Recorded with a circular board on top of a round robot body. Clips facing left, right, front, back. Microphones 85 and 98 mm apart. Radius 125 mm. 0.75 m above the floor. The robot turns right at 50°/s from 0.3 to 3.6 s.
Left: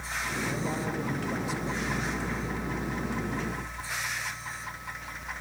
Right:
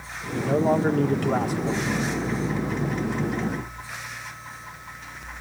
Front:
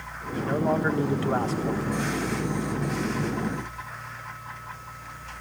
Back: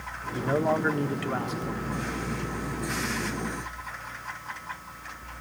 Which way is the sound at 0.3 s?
110° right.